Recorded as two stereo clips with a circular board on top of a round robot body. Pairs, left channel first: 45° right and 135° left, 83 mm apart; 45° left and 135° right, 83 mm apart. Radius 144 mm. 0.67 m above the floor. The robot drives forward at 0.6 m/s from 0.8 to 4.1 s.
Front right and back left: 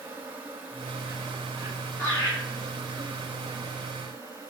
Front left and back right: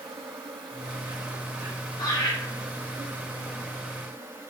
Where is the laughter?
15° left, 3.5 m.